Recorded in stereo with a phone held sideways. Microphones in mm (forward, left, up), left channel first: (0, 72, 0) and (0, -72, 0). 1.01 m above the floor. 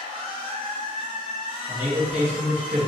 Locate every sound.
0.0 s a machine running: 40° right (ahead or behind), 1.3 m
1.7 s a man speaking: 55° right (ahead or behind), 1.2 m